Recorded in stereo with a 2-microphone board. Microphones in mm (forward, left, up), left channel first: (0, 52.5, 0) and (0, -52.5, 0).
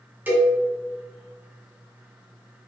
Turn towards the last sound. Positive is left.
turn(degrees=-20)  # may be behind; listen again after turning